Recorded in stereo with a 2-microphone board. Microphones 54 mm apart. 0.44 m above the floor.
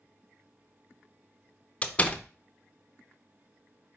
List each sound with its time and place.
1.8 s a door slam: 25° left (ahead or behind), 0.6 m